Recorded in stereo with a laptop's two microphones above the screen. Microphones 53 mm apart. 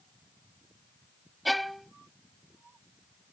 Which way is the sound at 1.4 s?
5° left (ahead or behind).